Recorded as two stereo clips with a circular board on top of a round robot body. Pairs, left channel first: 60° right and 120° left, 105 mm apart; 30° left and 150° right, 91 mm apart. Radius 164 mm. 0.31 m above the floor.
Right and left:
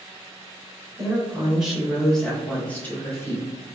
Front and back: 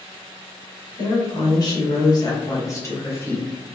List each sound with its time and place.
1.0 s a woman speaking: 45° left, 1.9 m; by 3.5 s 20° right, 1.5 m